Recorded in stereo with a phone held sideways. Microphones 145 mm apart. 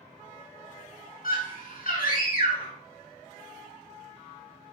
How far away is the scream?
About 1.4 m.